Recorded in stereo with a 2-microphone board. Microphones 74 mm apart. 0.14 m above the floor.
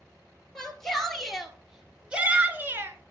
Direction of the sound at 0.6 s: 10° left (ahead or behind).